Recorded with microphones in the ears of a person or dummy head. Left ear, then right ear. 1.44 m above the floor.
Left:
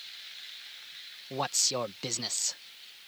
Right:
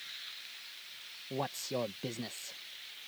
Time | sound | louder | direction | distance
1.3 | a man speaking | left 7 dB | 50° left (ahead or behind) | ?